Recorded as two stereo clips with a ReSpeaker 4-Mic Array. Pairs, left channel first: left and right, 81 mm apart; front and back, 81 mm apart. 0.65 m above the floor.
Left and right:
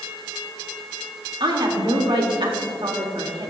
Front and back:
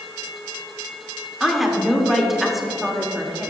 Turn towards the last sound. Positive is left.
turn(degrees=-95)